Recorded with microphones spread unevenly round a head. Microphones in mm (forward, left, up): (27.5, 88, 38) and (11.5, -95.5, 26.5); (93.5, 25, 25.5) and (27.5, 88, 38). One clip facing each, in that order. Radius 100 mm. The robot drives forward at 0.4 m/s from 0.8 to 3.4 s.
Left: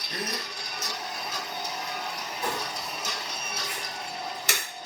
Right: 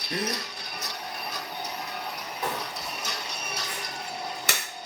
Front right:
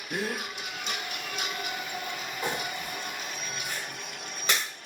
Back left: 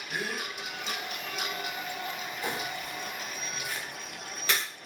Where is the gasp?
75° right, 0.6 m.